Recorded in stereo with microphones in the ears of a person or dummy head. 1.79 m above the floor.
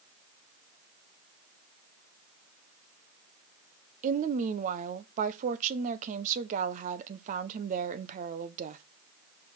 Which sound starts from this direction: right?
A woman speaking, at 4.0 s.